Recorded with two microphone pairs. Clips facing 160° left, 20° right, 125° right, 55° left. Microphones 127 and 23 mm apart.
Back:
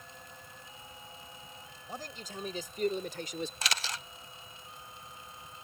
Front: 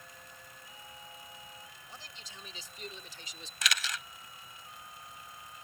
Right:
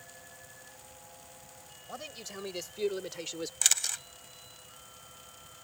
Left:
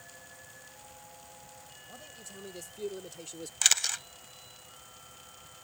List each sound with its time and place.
1.9 s a man speaking: 160° right; by 3.5 s 170° right
3.6 s a camera shutter: 120° left